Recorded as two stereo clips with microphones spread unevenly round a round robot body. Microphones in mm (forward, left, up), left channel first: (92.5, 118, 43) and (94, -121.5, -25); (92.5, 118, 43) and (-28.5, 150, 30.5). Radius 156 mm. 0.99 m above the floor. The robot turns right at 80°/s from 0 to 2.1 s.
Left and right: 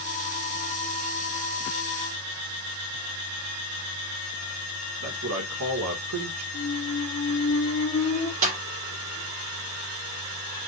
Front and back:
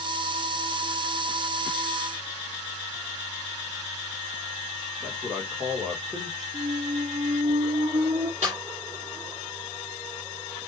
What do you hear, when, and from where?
5.0 s a man speaking: 115° right, 2.5 m
6.5 s a squeak: 130° left, 1.4 m
8.4 s a snare drum: 130° right, 5 m